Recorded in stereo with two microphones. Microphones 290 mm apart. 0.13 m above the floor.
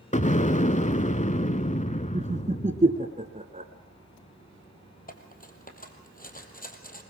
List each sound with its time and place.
0.1 s an explosion: 25° left (ahead or behind), 0.5 m
2.1 s laughter: 25° right (ahead or behind), 1.2 m
5.1 s cutlery clinking: 30° left (ahead or behind), 2.0 m